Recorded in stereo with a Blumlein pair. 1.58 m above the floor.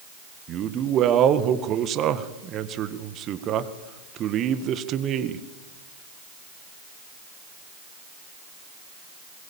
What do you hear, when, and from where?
0.5 s a man speaking: 30° right, 1.7 m